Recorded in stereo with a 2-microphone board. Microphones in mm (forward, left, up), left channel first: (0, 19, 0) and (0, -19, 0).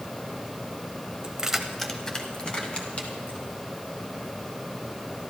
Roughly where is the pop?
I don't hear a pop.